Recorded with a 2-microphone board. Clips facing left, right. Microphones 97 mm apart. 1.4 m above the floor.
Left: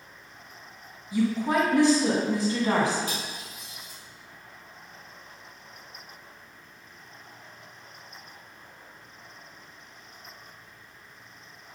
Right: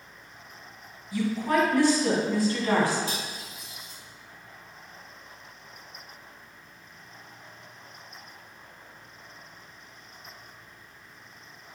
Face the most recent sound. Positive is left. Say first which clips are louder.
# even
turn(degrees=-30)  # may be behind; listen again after turning